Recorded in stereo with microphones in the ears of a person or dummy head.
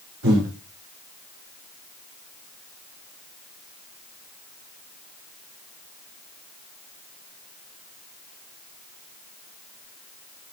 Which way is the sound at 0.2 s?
80° right.